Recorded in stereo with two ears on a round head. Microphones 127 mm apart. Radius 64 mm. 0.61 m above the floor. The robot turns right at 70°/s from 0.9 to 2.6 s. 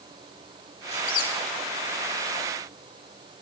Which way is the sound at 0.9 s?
50° left (ahead or behind).